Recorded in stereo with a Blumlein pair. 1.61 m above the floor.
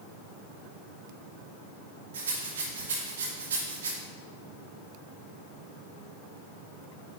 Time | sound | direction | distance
2.1 | a rattle | 60° right | 2.5 m